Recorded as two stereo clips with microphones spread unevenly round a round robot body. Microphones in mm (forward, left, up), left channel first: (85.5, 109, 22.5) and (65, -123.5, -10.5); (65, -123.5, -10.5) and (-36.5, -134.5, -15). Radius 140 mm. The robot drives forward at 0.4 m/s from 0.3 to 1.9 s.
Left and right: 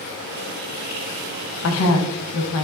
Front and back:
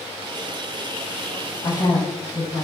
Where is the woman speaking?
70° left, 0.5 m; by 2.6 s 85° left, 0.5 m.